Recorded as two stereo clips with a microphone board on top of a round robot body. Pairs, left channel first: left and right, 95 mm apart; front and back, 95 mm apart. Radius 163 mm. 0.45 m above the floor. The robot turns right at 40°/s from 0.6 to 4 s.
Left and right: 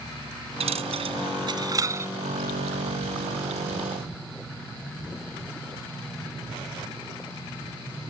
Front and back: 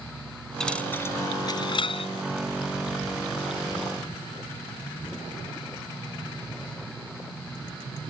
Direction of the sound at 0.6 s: 85° right.